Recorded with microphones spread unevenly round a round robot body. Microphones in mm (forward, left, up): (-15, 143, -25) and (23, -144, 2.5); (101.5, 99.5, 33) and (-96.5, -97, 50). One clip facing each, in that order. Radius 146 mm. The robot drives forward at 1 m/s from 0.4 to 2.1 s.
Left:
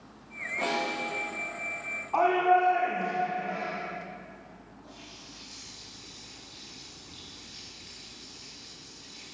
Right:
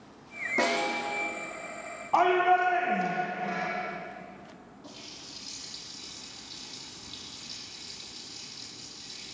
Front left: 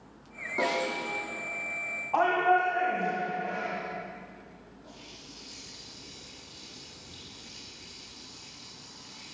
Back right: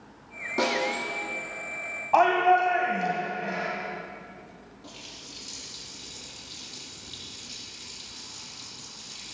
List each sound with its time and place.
0.6 s a snare drum: 95° right, 7 m
2.1 s a shout: 135° right, 2.5 m
4.8 s a running tap: 125° right, 6.5 m